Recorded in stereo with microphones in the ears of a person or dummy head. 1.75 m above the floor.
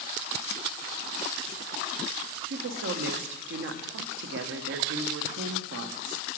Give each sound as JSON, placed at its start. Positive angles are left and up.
{"t": 2.5, "sound": "a woman speaking", "side_deg": -70, "distance_m": 0.7}